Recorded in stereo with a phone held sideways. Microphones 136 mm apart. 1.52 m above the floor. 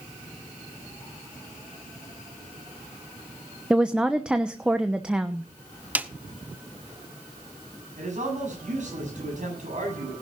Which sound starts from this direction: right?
A man speaking, at 8.0 s.